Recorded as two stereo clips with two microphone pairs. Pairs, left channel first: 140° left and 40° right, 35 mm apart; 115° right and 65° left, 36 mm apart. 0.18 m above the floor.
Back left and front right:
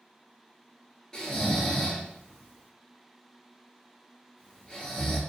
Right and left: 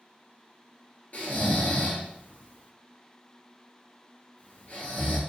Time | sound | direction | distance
1.1 | snoring | 150° right | 0.9 m